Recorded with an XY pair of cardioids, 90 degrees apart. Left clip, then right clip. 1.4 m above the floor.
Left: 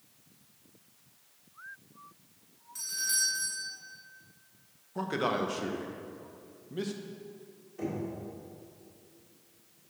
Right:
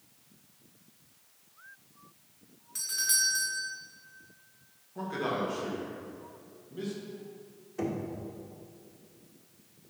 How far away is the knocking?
About 1.8 m.